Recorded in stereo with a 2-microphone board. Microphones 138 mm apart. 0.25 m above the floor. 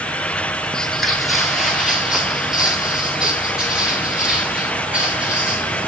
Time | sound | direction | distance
0.7 | footsteps | 5° left (ahead or behind) | 0.5 m